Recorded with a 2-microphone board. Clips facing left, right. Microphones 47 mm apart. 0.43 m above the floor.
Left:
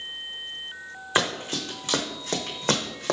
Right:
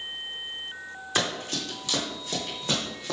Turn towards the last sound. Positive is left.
turn(degrees=65)  # may be behind; listen again after turning